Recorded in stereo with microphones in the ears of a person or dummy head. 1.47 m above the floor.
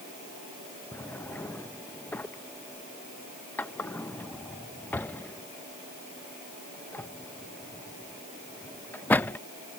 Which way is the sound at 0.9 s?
10° left (ahead or behind).